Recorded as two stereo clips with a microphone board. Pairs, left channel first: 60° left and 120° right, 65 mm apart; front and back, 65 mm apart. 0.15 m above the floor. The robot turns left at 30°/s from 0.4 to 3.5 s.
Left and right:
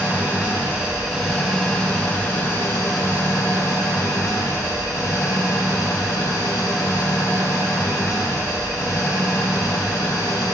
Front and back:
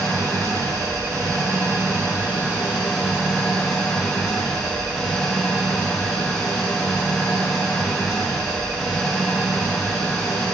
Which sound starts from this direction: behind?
An engine running, at 0.0 s.